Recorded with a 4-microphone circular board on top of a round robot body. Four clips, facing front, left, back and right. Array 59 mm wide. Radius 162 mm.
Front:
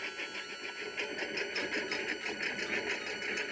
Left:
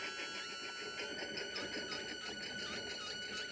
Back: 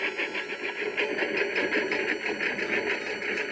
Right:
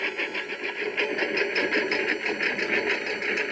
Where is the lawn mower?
130° right; by 3.5 s 110° right.